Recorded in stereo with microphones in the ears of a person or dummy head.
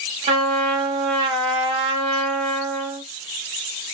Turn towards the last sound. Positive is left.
turn(degrees=-30)  # may be behind; listen again after turning